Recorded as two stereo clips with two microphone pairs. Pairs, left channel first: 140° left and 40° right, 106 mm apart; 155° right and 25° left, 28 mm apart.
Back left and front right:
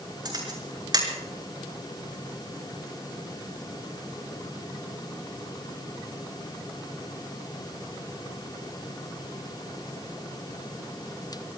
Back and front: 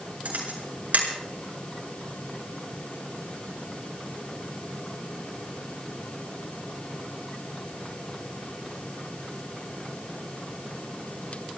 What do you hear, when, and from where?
0.2 s a camera shutter: 10° left, 6.5 m